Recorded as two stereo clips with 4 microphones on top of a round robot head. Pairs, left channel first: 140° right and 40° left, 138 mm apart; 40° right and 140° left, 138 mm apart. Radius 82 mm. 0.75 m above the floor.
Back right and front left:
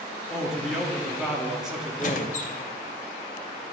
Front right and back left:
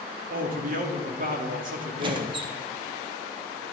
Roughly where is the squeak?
Behind.